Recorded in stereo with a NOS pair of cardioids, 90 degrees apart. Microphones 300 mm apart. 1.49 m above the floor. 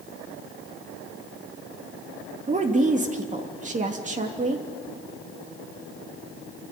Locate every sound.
2.5 s a woman speaking: 25° right, 2.5 m